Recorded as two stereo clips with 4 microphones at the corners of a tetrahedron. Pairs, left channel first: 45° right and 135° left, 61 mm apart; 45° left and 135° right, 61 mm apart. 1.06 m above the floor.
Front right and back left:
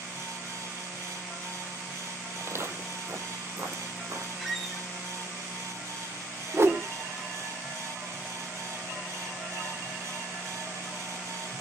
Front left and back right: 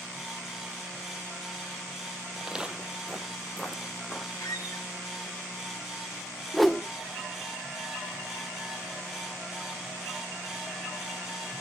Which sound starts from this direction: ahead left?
A squeak, at 4.4 s.